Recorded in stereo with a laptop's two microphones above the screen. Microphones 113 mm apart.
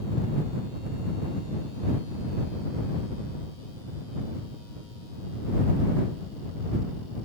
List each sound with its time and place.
Only background noise.